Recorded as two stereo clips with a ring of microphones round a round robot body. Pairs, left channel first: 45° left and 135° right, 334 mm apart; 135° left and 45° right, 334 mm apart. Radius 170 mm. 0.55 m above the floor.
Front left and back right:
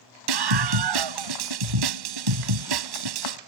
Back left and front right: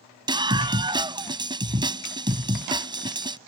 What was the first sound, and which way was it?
A scream, 120° right.